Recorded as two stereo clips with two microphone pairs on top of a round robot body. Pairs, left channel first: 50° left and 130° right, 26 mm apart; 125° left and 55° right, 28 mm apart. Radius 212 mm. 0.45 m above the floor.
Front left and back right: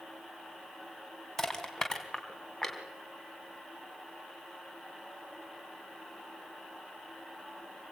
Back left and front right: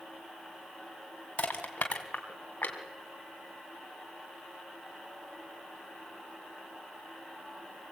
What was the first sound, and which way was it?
Crushing, 120° left.